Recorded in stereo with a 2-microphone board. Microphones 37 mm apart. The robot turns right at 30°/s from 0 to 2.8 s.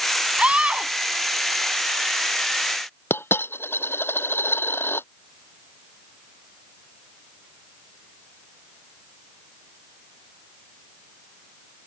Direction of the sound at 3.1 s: 85° left.